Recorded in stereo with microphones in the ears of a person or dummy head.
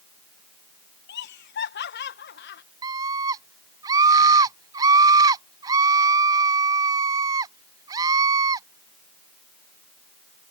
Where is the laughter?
50° left (ahead or behind).